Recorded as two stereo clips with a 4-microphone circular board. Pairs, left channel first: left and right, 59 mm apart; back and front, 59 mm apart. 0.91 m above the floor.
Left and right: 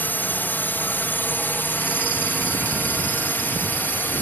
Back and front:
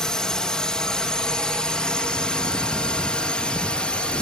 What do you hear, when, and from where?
0.0 s a drone: 110° left; by 4.2 s 120° left